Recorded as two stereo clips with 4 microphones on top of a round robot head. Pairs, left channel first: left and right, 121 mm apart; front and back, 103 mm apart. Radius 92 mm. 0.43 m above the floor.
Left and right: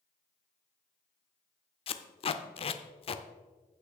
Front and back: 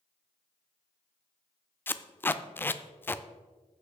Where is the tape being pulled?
65° left, 0.5 m.